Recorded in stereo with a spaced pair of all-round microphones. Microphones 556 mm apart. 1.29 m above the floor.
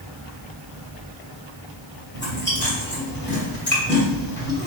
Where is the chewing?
20° left (ahead or behind), 1.7 m.